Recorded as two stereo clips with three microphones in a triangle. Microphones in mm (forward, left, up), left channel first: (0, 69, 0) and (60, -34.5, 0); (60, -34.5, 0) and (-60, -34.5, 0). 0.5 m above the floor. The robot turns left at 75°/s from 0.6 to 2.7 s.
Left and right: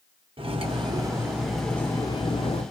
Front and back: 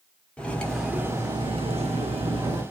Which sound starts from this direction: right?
Cutlery clinking, at 0.4 s.